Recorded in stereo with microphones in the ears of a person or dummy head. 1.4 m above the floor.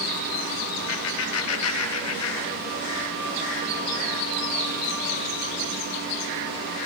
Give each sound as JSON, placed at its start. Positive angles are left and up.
{"t": 0.9, "sound": "laughter", "side_deg": 65, "distance_m": 3.5}